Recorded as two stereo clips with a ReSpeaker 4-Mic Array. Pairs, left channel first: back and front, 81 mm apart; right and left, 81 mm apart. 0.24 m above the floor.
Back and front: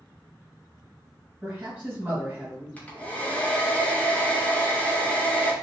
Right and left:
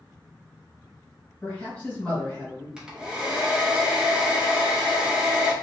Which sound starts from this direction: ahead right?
A man speaking, at 1.4 s.